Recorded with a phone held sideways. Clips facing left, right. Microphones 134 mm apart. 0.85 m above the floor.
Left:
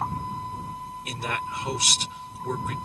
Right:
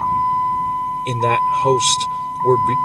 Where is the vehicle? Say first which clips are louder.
Right 14 dB; 70° right (ahead or behind).